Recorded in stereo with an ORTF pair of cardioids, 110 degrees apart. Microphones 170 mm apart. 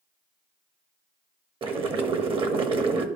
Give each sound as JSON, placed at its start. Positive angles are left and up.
{"t": 1.6, "sound": "boiling", "azimuth_deg": -35, "distance_m": 1.0}